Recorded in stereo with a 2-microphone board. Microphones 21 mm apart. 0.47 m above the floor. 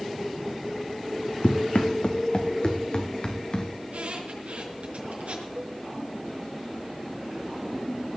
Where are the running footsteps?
70° left (ahead or behind), 1.4 m; by 3.7 s 40° left (ahead or behind), 2.5 m.